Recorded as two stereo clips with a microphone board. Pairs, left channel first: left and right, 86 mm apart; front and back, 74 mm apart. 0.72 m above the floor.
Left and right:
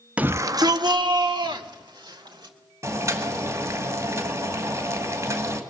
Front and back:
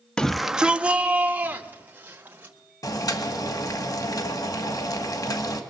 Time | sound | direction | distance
0.2 | a shout | 50° right | 0.5 m
2.8 | boiling | 35° right | 2 m